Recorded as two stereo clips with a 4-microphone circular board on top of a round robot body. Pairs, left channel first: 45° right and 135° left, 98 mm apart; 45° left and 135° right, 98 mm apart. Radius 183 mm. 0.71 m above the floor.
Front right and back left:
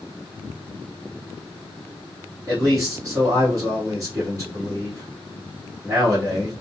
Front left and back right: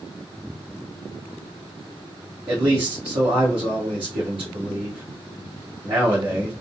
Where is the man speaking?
170° right, 1.7 m.